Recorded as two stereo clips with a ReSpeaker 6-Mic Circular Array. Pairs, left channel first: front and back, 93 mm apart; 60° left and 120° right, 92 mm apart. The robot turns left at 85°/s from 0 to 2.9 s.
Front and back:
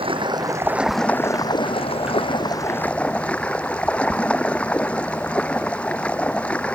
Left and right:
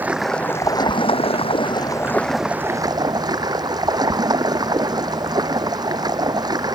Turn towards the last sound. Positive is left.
turn(degrees=-75)